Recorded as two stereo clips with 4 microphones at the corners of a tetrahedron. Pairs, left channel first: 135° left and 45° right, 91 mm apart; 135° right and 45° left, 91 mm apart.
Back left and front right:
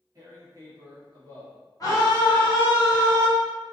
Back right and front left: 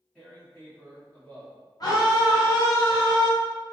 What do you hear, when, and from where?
0.1 s tearing paper: 65° right, 1.3 m
1.8 s a scream: 175° right, 1.6 m